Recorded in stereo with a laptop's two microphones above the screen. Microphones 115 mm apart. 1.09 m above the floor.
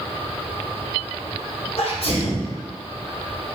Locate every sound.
1.8 s a sneeze: 60° left (ahead or behind), 1.4 m